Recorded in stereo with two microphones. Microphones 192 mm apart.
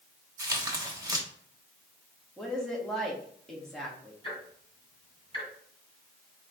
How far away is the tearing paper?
About 1.0 m.